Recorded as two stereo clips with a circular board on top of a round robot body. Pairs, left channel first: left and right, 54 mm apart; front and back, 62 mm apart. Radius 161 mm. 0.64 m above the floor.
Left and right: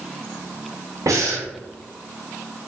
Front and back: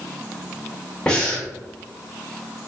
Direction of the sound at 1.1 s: 80° right.